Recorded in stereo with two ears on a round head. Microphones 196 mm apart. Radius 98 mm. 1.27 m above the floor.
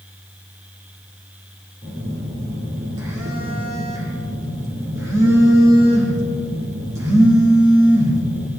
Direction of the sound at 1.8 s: 15° right (ahead or behind).